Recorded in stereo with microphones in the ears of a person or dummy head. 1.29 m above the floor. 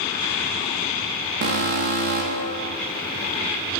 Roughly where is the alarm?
Right.